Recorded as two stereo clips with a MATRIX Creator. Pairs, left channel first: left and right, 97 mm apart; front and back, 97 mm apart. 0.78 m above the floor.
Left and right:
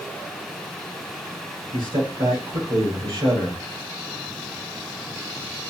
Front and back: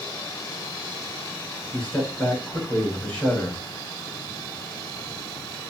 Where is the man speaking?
80° right, 3.5 m.